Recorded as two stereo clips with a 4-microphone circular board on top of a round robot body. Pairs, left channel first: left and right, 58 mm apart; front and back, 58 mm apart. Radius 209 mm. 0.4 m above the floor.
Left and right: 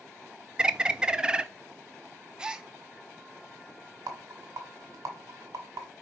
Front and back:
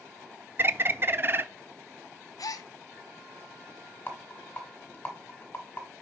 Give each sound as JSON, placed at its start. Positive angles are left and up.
{"t": 0.6, "sound": "a bird", "azimuth_deg": -155, "distance_m": 0.7}
{"t": 2.4, "sound": "a gasp", "azimuth_deg": -15, "distance_m": 0.6}
{"t": 4.1, "sound": "a rattle", "azimuth_deg": -60, "distance_m": 1.3}